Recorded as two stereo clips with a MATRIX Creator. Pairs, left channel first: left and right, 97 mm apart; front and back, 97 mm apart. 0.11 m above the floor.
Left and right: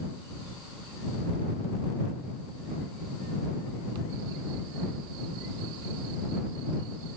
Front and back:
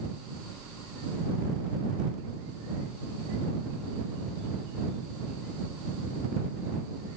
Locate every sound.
Only background noise.